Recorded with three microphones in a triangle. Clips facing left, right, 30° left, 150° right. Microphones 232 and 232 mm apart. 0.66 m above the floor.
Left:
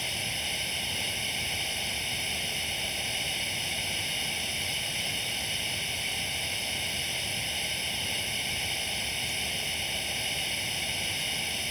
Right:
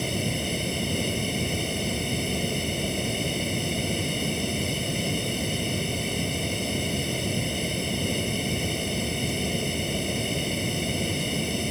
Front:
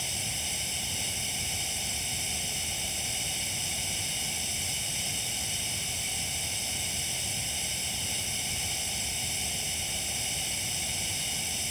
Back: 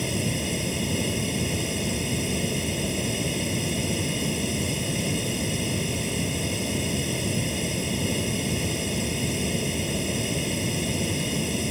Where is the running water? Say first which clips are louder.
Right 14 dB, back 16 dB; 125° right.